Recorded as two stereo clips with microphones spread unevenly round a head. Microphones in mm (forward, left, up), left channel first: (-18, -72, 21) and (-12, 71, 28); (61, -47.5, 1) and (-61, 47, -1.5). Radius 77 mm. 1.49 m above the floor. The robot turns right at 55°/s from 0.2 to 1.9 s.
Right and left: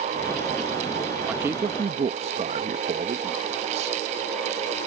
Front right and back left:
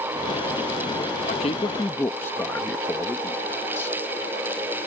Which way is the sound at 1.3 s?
5° left.